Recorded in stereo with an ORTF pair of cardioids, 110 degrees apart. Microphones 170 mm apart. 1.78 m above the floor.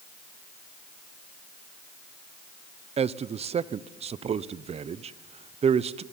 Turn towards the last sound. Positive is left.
turn(degrees=-40)